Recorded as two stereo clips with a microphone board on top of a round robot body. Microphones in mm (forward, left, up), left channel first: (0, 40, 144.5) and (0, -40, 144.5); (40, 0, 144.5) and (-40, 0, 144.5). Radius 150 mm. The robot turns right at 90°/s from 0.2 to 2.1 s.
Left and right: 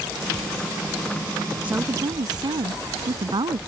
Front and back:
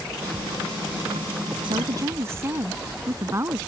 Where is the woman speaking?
165° right; by 3.6 s 120° right.